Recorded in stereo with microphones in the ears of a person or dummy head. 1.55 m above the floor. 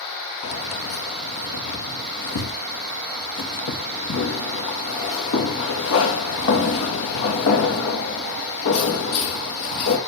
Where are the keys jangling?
75° left (ahead or behind), 1.7 m.